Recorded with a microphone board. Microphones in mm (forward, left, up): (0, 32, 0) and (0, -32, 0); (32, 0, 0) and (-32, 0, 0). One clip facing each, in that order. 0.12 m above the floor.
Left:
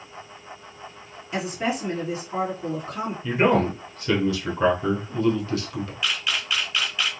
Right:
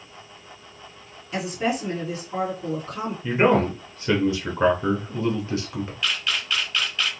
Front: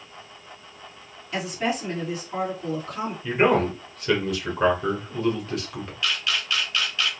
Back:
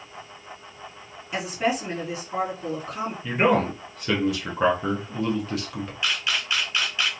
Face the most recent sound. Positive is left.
turn(degrees=160)